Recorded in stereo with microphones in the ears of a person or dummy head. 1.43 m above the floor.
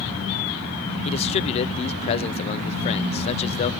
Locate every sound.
1.1 s a man speaking: 35° left (ahead or behind), 0.5 m